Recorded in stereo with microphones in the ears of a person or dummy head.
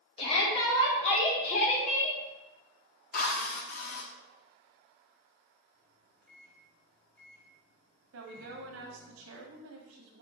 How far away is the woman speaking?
About 1.4 m.